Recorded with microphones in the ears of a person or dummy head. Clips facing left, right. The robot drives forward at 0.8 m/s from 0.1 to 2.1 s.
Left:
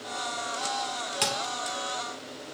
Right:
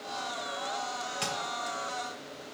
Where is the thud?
65° left (ahead or behind), 2 m; by 1.8 s 70° left (ahead or behind), 2 m.